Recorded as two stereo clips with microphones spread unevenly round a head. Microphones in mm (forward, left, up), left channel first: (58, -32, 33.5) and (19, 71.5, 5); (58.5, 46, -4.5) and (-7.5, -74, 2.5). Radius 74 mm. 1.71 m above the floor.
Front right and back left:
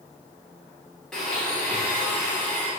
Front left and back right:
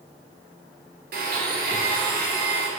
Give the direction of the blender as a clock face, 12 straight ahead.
5 o'clock.